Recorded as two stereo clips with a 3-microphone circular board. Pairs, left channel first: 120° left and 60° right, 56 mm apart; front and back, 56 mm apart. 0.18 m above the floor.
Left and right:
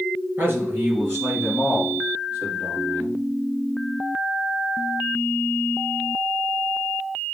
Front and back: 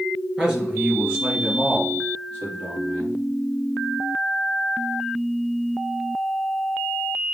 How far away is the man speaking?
About 2.5 m.